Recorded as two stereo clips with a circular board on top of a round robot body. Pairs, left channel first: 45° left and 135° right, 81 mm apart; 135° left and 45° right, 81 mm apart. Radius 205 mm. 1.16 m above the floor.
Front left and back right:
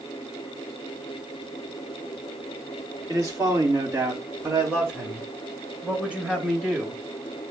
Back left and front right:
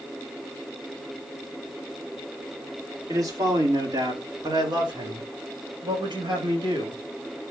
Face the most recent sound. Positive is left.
turn(degrees=-55)